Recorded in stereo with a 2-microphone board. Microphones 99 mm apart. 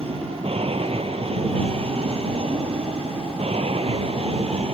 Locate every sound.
0.0 s an aircraft: 65° right (ahead or behind); by 4.7 s 70° right (ahead or behind)